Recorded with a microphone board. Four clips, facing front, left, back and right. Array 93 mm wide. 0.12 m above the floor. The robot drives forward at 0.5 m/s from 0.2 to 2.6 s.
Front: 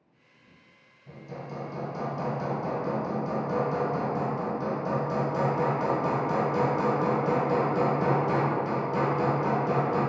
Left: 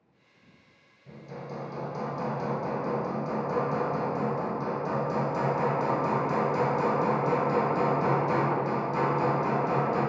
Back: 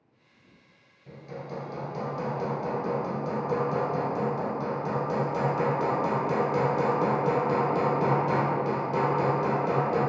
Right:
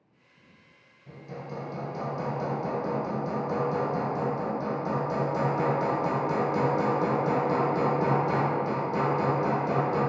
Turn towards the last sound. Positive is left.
turn(degrees=180)